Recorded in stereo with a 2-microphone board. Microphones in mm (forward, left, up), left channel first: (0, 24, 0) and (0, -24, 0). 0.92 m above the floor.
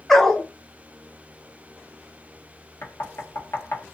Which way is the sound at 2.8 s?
65° left (ahead or behind).